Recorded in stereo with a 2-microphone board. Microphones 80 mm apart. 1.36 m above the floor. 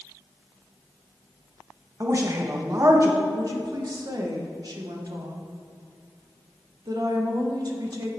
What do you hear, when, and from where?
2.0 s a woman speaking: 40° right (ahead or behind), 1.5 m
3.3 s a woman speaking: 55° right (ahead or behind), 1.4 m